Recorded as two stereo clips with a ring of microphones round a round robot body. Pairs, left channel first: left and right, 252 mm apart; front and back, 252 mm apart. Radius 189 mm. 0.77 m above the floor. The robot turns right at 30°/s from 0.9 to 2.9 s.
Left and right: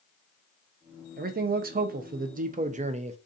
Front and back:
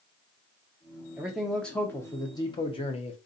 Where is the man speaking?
100° right, 0.6 m; by 3.2 s 45° right, 0.6 m.